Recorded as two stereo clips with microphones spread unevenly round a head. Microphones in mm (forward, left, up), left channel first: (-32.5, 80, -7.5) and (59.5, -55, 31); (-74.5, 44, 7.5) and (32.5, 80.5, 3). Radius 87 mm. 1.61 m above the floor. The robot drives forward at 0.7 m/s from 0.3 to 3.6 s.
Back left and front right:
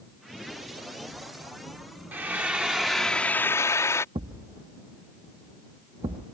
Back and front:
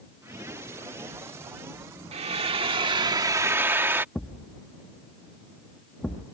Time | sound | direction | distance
2.1 | frying | 10° left | ?
4.2 | a thud | 80° right | ?